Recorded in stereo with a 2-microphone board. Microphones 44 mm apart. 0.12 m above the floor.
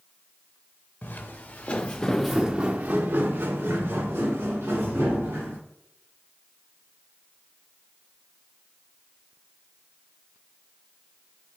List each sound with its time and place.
1.0 s footsteps: 55° left (ahead or behind), 1.1 m; by 5.6 s 85° right, 2.5 m